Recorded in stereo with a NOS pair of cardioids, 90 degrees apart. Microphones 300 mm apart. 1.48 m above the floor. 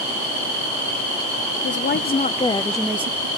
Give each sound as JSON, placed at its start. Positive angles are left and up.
{"t": 1.6, "sound": "a woman speaking", "azimuth_deg": 45, "distance_m": 1.0}